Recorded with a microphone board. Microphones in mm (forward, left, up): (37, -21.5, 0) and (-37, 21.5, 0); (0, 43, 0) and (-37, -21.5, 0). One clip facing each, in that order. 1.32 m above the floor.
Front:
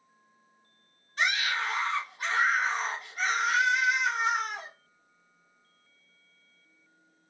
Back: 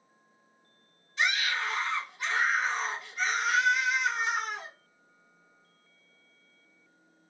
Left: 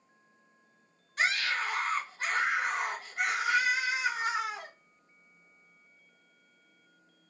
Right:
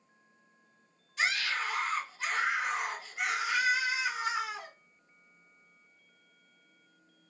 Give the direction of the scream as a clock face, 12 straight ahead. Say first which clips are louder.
Even, left 2 dB; 11 o'clock.